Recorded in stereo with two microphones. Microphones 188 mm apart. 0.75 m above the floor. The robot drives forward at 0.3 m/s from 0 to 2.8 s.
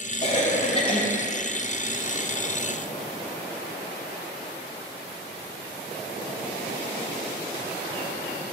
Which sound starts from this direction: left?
A cough, at 0.2 s.